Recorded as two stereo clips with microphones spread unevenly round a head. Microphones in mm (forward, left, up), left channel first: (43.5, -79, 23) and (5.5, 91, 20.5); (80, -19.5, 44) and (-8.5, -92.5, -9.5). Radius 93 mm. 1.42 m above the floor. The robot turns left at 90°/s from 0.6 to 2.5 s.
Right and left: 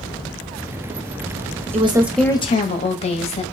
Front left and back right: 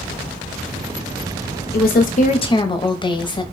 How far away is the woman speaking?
About 0.7 m.